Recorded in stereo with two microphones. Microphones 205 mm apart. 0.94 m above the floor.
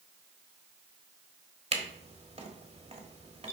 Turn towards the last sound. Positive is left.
turn(degrees=-30)  # may be behind; listen again after turning